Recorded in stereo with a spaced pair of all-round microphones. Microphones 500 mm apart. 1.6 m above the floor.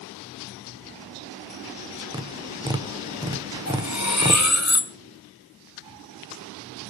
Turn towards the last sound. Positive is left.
turn(degrees=35)  # may be behind; listen again after turning